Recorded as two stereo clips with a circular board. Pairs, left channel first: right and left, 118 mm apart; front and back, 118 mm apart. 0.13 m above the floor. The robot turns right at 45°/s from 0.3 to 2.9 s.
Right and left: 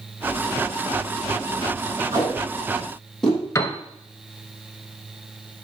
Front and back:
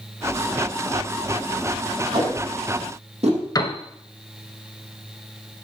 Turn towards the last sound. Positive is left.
turn(degrees=-40)